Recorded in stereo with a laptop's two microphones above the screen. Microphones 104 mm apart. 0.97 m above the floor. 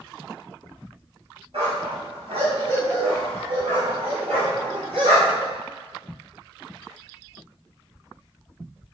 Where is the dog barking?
80° right, 2.5 m; by 5.5 s 85° right, 5 m.